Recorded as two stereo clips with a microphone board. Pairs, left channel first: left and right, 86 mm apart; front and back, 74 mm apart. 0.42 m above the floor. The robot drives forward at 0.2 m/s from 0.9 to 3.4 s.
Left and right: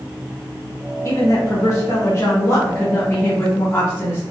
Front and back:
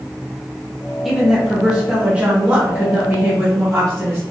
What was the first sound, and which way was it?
A woman speaking, 95° left.